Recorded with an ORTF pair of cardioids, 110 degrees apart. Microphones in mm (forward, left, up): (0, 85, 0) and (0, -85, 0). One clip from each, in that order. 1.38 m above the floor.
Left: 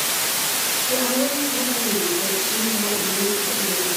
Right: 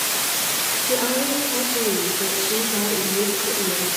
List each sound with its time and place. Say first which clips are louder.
0.8 s a woman speaking: even; 60° right, 5.5 m